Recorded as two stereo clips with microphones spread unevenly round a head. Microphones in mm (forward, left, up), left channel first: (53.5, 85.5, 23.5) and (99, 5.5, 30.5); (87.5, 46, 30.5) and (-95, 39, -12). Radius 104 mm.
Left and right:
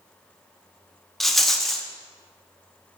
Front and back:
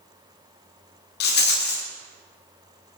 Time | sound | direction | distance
1.2 | a rattle | 30° left | 1.0 m